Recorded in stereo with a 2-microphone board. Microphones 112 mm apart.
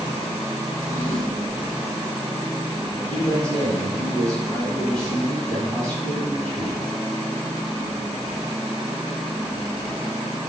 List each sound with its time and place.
0.7 s a drawer: 10° left (ahead or behind), 3.5 m
3.1 s a man speaking: 10° left (ahead or behind), 4 m